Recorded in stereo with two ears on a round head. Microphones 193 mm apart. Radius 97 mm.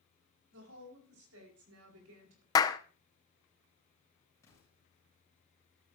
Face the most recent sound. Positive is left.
turn(degrees=15)  # may be behind; listen again after turning